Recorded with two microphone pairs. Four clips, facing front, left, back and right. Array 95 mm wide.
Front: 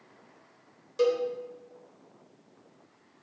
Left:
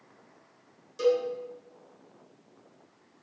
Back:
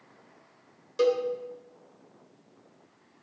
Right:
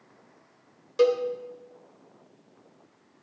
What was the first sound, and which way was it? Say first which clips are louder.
A cowbell: right 3 dB, back 1 dB; 100° right.